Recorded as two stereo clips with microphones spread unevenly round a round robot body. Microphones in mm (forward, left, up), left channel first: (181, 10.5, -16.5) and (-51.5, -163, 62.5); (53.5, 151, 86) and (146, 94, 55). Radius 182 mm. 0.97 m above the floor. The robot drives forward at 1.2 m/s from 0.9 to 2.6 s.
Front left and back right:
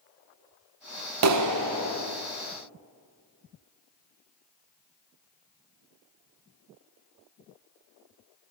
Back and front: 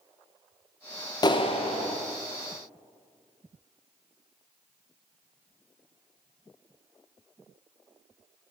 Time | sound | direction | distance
1.2 | a clap | 160° right | 0.6 m